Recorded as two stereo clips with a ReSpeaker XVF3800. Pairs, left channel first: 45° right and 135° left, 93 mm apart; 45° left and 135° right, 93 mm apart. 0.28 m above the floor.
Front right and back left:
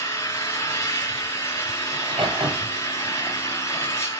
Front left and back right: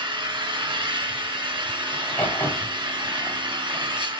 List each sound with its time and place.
0.0 s an engine running: 105° right, 3.5 m
1.9 s a crack: 115° left, 7.5 m